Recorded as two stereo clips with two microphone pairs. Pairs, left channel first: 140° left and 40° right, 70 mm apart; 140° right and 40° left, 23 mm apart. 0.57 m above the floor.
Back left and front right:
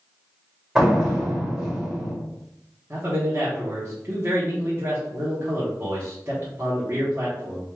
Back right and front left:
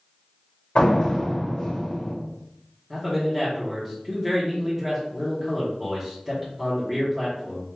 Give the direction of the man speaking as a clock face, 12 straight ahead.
1 o'clock.